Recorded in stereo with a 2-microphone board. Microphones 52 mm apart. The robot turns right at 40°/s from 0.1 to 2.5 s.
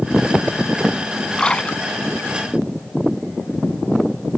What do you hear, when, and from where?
1.4 s a splash: 15° left (ahead or behind); by 2.3 s 50° left (ahead or behind)